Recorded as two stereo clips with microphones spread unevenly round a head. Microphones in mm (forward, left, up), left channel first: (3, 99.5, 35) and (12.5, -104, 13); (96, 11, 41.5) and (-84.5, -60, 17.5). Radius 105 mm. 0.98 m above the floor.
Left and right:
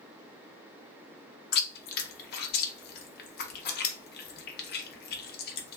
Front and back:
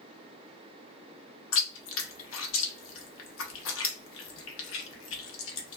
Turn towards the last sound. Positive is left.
turn(degrees=50)